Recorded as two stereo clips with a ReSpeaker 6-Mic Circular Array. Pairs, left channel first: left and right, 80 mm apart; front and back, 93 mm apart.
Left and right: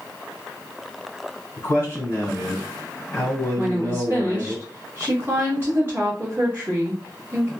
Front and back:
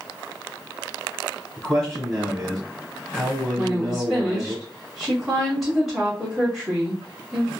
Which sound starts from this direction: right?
A woman speaking, at 3.6 s.